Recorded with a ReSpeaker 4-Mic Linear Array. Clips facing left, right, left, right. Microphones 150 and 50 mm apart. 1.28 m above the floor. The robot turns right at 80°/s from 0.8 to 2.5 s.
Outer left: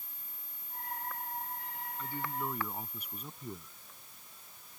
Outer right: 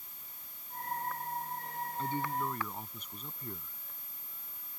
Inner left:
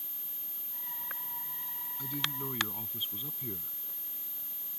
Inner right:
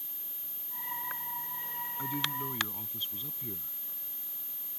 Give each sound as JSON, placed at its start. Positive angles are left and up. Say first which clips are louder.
{"t": 2.0, "sound": "a man speaking", "louder": "outer right 3 dB, inner right 2 dB", "azimuth_deg": -30}